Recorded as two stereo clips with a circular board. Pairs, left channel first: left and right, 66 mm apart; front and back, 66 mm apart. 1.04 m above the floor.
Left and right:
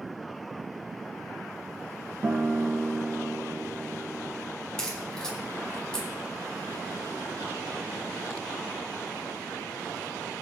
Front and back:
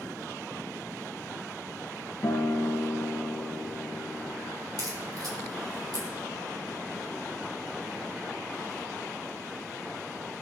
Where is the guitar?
35° right, 1.0 m.